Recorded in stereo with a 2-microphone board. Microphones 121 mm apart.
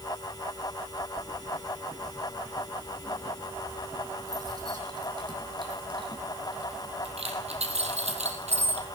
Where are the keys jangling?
20° right (ahead or behind), 6.5 m; by 8.8 s 75° right (ahead or behind), 3 m.